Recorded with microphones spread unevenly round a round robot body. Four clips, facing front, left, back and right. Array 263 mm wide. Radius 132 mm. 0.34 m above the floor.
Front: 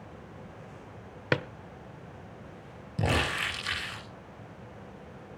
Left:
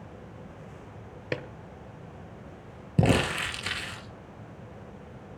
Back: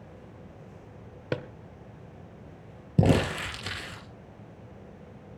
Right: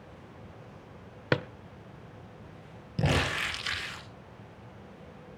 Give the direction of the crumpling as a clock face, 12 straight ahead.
7 o'clock.